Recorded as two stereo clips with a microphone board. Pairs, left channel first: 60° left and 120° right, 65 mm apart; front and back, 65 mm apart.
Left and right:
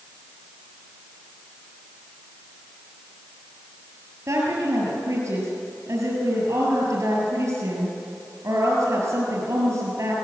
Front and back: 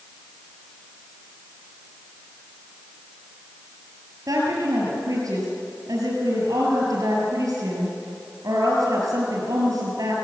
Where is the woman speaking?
160° right, 6 m.